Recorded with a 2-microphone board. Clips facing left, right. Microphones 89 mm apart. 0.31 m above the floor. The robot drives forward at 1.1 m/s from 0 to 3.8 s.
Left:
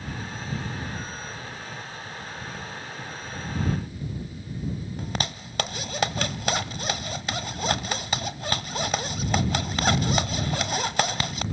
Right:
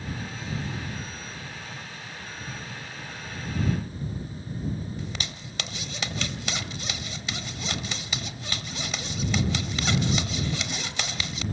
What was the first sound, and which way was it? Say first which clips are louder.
A zipper: left 5 dB; 40° left (ahead or behind).